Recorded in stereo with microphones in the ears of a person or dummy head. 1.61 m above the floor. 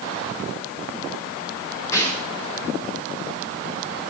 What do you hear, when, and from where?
1.9 s a snare drum: 15° left (ahead or behind), 9.5 m